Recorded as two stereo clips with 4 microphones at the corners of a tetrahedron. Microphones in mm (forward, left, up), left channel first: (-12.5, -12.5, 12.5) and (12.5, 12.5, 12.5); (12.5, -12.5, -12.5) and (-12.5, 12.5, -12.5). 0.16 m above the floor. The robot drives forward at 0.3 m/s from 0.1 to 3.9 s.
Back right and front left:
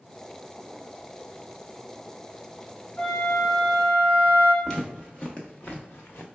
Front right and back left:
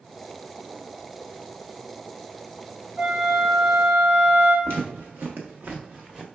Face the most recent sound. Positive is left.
turn(degrees=-145)